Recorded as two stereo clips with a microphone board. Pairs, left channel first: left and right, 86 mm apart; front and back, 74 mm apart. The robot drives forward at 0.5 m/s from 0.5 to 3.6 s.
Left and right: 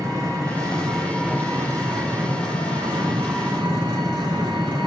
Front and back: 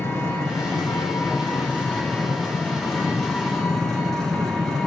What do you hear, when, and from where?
0.0 s an engine running: 50° right, 3 m; by 4.9 s 90° right, 2.5 m